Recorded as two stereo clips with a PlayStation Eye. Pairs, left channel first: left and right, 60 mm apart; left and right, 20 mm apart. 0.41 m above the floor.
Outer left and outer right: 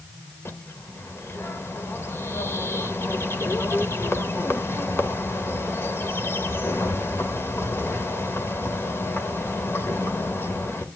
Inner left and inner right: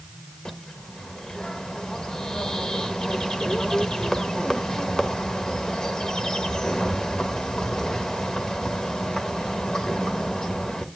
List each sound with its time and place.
0.5 s a bird: 45° left (ahead or behind), 1.2 m